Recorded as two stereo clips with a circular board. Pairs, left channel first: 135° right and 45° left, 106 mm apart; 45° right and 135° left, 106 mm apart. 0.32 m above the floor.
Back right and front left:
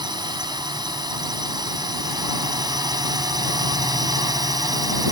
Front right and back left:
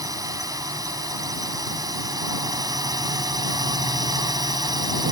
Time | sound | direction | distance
0.0 | a drone | 85° left | ?